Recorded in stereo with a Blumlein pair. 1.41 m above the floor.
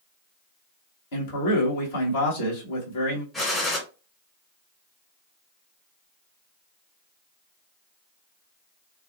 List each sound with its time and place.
1.1 s a man speaking: 55° left, 1.2 m
3.3 s a gunshot: 10° left, 1.2 m